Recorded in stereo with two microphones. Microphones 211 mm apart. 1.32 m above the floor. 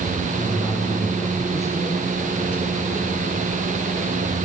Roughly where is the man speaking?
Centre.